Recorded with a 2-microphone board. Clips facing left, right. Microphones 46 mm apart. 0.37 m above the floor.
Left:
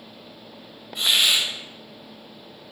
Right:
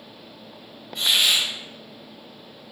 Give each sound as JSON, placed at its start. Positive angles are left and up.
{"t": 0.9, "sound": "a hiss", "side_deg": 5, "distance_m": 1.1}